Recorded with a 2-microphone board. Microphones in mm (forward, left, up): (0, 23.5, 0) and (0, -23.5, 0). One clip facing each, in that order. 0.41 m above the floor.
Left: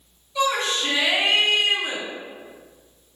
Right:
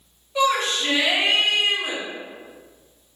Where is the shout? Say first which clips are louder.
Right 2 dB; 45° right (ahead or behind), 2.0 m; by 2.0 s 55° right (ahead or behind), 1.8 m.